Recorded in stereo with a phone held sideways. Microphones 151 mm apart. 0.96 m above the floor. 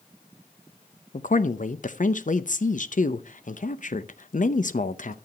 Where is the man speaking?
55° left (ahead or behind), 0.7 m.